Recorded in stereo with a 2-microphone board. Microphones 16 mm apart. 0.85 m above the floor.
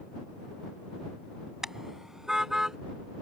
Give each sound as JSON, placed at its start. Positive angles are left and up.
{"t": 1.6, "sound": "a car horn", "side_deg": -30}